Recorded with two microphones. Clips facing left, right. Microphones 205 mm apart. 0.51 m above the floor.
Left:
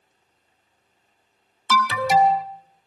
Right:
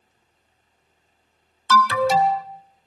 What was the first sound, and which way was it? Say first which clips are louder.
An alarm: right 2 dB; 15° left (ahead or behind).